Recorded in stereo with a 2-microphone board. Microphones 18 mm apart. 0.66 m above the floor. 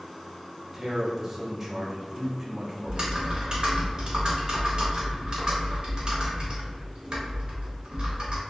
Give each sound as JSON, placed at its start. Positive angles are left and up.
{"t": 0.7, "sound": "a man speaking", "side_deg": -20, "distance_m": 0.6}
{"t": 2.9, "sound": "typing on a keyboard", "side_deg": -45, "distance_m": 0.7}